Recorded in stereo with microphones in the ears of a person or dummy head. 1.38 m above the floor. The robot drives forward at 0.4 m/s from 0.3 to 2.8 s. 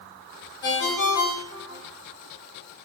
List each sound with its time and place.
0.6 s a ringtone: 55° left (ahead or behind), 1.2 m; by 1.8 s 45° left (ahead or behind), 1.4 m